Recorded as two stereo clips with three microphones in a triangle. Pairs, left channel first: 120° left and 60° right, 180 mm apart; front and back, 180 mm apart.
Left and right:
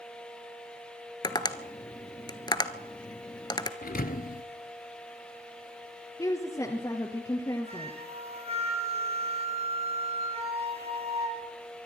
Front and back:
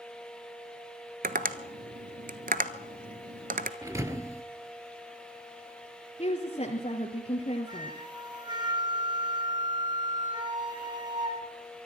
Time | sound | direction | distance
1.2 | tapping | straight behind | 1.1 m
3.8 | a thud | 110° left | 1.1 m
6.2 | a woman speaking | 50° left | 2.5 m
7.7 | a flute | 115° right | 4.5 m